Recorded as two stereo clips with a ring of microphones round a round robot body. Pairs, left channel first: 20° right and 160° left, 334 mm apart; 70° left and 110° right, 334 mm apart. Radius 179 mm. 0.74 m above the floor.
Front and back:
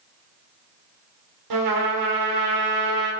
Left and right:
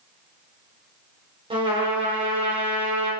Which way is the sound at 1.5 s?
175° left.